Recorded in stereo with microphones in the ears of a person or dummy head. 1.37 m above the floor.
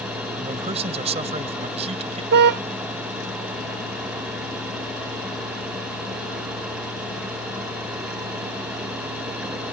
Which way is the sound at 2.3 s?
50° right (ahead or behind).